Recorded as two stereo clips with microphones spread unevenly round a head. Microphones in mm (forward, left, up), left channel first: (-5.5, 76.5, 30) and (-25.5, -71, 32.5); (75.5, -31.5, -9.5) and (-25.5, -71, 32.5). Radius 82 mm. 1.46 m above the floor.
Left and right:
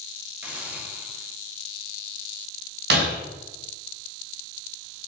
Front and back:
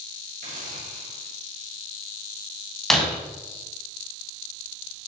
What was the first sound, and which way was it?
A hiss, 175° right.